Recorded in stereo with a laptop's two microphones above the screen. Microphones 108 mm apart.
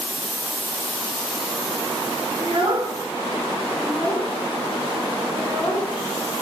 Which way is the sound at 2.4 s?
60° right (ahead or behind).